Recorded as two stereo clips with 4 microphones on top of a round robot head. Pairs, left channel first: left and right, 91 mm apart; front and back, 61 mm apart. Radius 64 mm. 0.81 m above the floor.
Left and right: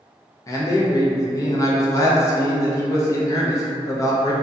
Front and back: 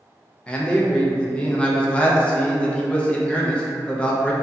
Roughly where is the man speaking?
Ahead left.